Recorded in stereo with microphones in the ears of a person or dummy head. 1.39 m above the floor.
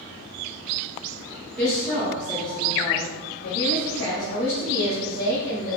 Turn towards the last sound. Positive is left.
turn(degrees=80)